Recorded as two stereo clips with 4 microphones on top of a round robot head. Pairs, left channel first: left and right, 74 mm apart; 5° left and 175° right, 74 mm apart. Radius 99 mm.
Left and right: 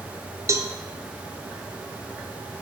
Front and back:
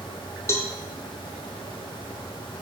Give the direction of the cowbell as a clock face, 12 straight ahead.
1 o'clock.